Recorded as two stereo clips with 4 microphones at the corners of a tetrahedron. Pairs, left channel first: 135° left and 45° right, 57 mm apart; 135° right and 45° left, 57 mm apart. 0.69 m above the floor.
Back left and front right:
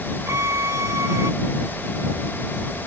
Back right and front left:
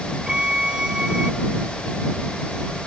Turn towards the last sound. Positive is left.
turn(degrees=-30)